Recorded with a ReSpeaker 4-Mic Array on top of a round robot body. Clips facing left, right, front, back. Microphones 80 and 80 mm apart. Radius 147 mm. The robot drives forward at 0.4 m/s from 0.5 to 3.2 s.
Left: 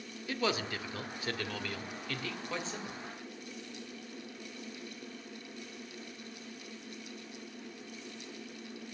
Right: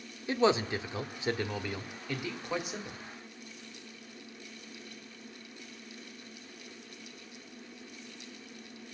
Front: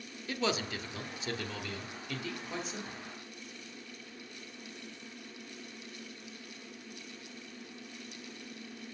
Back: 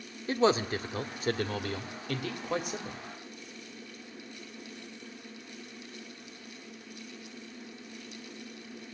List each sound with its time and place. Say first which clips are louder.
0.3 s a man speaking: right 7 dB, back 8 dB; 145° right, 1.1 m; by 3.0 s 165° right, 1.8 m